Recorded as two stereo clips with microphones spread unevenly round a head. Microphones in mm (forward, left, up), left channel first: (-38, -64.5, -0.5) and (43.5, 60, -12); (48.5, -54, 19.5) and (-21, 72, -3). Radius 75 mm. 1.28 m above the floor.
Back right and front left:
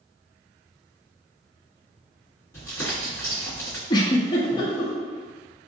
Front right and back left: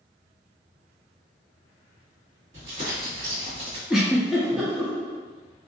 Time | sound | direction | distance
2.5 | crumpling | 165° left | 1.9 m
3.9 | a giggle | 145° right | 0.6 m